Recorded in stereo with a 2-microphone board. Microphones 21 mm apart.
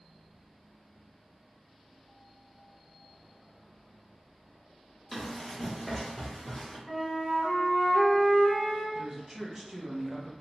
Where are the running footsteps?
5° left (ahead or behind), 1.3 m; by 6.8 s 20° left (ahead or behind), 1.5 m.